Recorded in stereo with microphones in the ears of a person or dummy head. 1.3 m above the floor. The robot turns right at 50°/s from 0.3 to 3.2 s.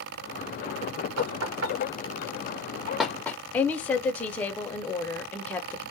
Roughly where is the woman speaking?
Centre.